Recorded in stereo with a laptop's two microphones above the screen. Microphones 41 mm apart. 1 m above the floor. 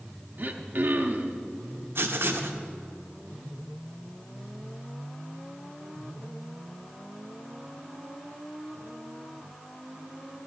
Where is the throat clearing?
50° right (ahead or behind), 0.7 m.